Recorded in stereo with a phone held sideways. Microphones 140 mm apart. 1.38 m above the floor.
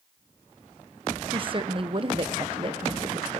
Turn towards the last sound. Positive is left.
turn(degrees=-35)  # may be behind; listen again after turning